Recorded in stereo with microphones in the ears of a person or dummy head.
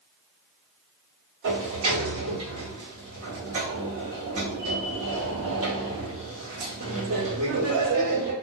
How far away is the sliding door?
About 1.2 m.